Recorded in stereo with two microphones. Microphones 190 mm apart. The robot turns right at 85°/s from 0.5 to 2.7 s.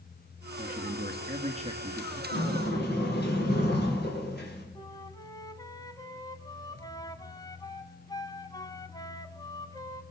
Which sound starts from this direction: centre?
A flute, at 4.8 s.